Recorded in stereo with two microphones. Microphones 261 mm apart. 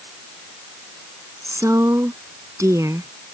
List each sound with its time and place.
1.4 s a woman speaking: 10° right (ahead or behind)